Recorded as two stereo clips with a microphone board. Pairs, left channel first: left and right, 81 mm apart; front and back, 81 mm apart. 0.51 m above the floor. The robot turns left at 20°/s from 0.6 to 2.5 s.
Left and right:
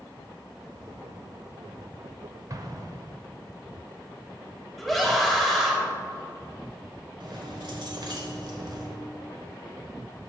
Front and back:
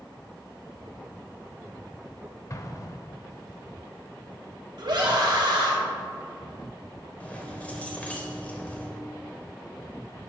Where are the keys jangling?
70° right, 1.4 m.